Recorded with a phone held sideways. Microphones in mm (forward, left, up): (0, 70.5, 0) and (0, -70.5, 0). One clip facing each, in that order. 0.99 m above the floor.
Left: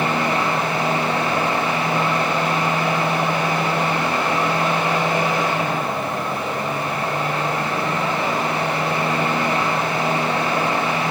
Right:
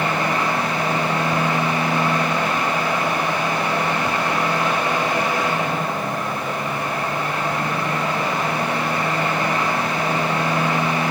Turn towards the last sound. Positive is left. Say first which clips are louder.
# left 1 dB
turn(degrees=25)  # may be behind; listen again after turning